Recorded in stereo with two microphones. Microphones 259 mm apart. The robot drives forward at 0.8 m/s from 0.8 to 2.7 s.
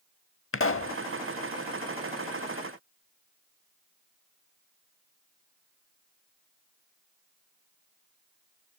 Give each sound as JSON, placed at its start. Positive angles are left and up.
{"t": 0.5, "sound": "a pop", "side_deg": 55, "distance_m": 0.5}